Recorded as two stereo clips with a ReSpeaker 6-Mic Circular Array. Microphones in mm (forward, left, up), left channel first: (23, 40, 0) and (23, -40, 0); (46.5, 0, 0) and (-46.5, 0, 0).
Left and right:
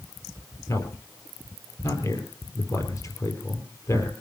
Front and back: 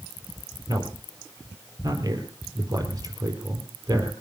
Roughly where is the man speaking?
Behind left.